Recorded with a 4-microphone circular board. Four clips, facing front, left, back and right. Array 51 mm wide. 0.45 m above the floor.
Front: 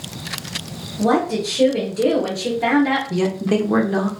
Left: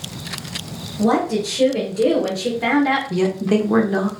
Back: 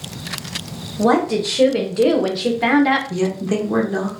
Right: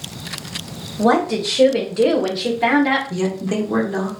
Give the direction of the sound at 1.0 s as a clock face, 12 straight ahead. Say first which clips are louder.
Right 2 dB, back 2 dB; 5 o'clock.